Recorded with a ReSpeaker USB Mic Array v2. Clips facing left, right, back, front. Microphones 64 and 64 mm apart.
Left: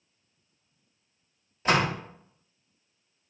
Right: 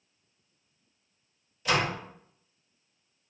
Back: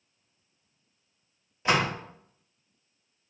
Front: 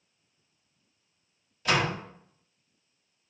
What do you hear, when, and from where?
1.6 s a door slam: 125° left, 0.7 m